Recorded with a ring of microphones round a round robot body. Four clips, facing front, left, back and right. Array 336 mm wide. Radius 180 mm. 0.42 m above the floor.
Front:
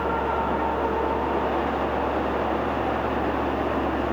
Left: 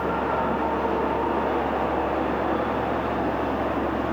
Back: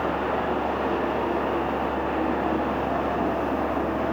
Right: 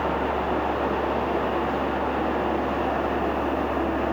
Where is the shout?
No shout in this recording.